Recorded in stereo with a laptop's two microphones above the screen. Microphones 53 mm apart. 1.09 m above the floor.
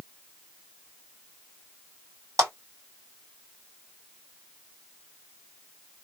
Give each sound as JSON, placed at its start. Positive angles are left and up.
{"t": 2.4, "sound": "a clap", "side_deg": -80, "distance_m": 1.7}